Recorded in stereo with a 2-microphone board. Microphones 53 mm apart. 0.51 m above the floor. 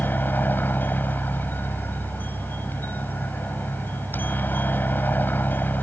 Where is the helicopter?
35° left (ahead or behind).